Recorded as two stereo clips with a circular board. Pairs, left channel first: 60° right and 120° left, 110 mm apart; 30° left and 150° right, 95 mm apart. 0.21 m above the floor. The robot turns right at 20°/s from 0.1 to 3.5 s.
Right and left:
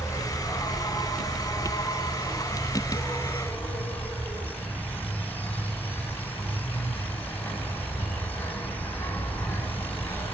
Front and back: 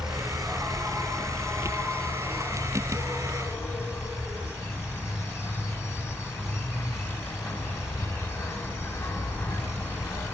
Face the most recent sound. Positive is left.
turn(degrees=-5)